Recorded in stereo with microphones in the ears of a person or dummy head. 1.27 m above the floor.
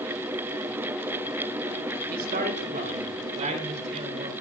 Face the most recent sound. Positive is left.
turn(degrees=-35)  # may be behind; listen again after turning